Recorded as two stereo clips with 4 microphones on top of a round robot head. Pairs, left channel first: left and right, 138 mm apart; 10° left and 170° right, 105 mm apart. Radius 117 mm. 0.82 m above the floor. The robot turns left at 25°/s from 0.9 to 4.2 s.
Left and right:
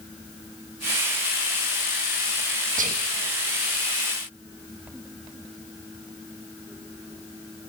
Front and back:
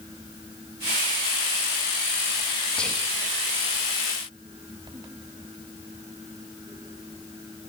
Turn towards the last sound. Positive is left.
turn(degrees=-105)